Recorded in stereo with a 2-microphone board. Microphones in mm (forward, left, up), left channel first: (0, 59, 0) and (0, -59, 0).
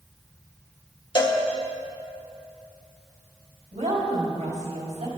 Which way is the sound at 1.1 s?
40° left (ahead or behind).